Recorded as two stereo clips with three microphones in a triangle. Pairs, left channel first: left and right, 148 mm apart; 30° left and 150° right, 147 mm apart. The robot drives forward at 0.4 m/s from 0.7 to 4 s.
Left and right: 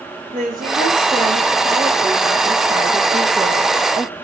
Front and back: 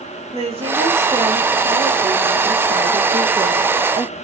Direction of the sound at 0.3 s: 105° right.